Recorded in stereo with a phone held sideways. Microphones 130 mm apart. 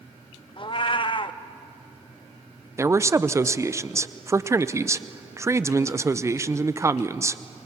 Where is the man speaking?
25° right (ahead or behind), 0.6 m.